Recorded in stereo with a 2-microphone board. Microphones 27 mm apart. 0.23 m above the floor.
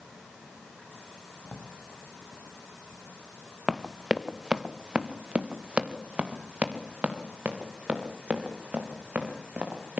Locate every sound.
1.4 s a drawer: 65° left (ahead or behind), 5.5 m
3.7 s running footsteps: 15° right (ahead or behind), 1.7 m; by 10.0 s 70° right (ahead or behind), 6.5 m